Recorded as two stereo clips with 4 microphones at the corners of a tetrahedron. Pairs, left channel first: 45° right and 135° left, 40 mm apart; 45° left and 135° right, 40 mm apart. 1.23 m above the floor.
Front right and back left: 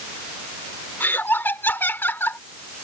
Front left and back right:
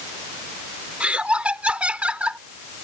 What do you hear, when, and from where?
1.0 s laughter: 75° right